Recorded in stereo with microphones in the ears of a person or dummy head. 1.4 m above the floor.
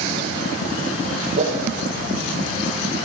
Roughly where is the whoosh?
Right.